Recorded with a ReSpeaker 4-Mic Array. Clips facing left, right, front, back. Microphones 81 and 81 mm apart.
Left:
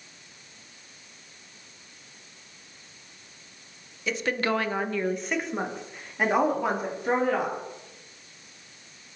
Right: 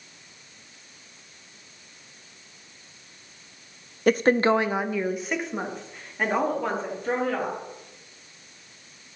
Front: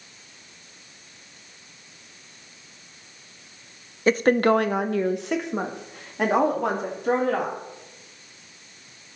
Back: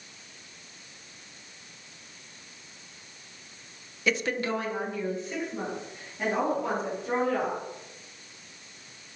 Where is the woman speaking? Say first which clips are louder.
Right 8 dB, front 10 dB; 55° right, 0.7 m; by 7.6 s 15° left, 4 m.